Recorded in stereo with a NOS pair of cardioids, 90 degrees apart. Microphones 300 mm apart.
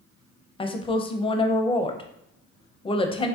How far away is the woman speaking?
About 0.5 m.